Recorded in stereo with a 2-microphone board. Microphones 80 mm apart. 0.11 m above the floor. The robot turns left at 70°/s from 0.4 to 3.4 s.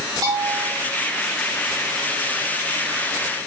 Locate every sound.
0.2 s a bell: 65° right (ahead or behind), 5 m; by 0.7 s 40° right (ahead or behind), 5 m